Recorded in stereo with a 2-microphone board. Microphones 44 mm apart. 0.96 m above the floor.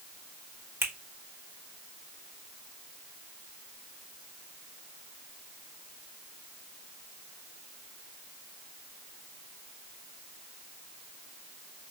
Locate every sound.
0.8 s a finger snap: 60° right (ahead or behind), 1.6 m